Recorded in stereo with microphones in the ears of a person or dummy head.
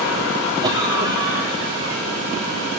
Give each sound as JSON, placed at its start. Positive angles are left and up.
{"t": 0.6, "sound": "a cough", "side_deg": -25, "distance_m": 3.0}